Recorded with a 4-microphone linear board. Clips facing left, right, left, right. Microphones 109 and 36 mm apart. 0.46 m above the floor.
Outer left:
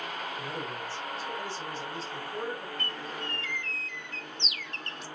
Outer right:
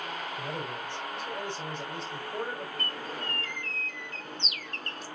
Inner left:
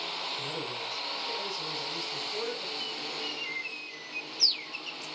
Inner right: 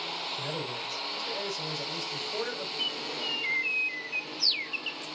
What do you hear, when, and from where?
0.4 s a man speaking: 60° right (ahead or behind), 3 m
2.8 s a bird: 40° right (ahead or behind), 0.7 m